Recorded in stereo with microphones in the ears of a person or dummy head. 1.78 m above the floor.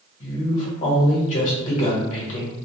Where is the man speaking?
45° left (ahead or behind), 1.4 m.